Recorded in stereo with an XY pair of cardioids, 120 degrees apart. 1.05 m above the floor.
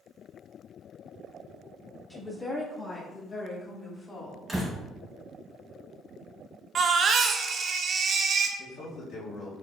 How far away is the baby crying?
About 0.6 m.